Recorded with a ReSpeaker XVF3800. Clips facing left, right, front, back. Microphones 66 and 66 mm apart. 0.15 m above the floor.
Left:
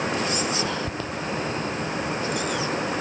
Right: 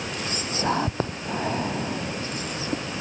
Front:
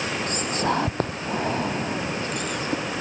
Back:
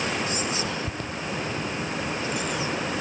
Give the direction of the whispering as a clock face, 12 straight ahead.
1 o'clock.